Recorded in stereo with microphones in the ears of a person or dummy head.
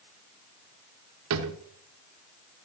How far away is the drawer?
About 1.2 m.